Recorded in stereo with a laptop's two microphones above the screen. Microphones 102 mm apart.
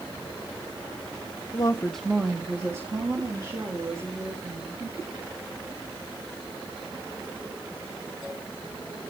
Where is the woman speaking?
50° left (ahead or behind), 0.7 m; by 4.8 s 40° right (ahead or behind), 5 m.